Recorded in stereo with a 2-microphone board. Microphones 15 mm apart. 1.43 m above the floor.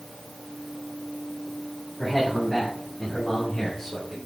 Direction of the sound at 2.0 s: 20° left (ahead or behind).